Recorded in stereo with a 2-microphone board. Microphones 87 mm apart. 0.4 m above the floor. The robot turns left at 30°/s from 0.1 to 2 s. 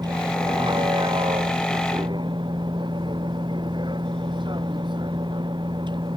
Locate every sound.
0.0 s a vehicle: 55° right; by 6.2 s 110° right